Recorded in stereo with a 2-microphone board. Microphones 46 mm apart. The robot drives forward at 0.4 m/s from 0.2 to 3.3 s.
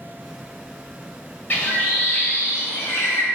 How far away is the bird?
About 1.3 m.